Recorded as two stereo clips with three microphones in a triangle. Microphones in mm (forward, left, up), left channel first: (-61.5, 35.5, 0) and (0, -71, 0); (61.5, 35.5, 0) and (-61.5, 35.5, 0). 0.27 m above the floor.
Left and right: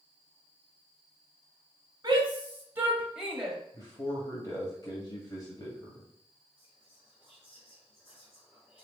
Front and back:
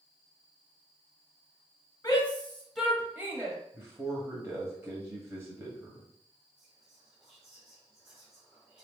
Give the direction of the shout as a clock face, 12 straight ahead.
1 o'clock.